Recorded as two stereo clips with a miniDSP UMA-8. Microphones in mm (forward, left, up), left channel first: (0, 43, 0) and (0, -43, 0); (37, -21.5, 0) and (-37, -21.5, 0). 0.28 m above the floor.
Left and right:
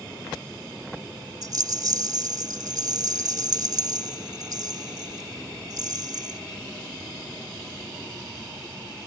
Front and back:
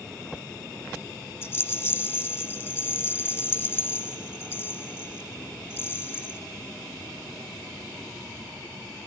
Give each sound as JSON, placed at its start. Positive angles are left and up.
{"t": 1.4, "sound": "a rattle", "azimuth_deg": -50, "distance_m": 2.5}